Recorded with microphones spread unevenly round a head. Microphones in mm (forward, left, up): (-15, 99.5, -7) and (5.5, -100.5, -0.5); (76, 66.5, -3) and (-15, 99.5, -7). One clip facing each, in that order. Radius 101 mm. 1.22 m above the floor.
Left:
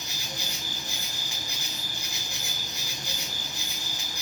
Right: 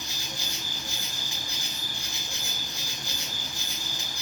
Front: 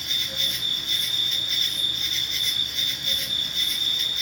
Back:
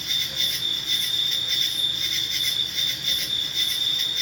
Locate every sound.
0.0 s an insect: 170° left, 1.2 m